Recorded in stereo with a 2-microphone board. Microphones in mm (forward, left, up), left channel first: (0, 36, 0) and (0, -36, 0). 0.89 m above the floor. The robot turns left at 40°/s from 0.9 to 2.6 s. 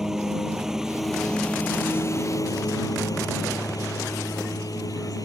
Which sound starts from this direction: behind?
A lawn mower, at 0.0 s.